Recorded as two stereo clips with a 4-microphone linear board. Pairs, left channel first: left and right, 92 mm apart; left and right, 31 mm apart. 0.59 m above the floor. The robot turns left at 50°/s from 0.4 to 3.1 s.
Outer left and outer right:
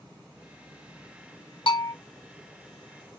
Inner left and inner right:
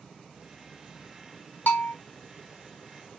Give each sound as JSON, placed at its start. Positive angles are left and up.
{"t": 1.7, "sound": "a bell", "side_deg": 70, "distance_m": 1.1}